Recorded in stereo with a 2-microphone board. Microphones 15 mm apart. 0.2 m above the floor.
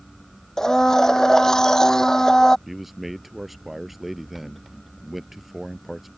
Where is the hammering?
No hammering in this recording.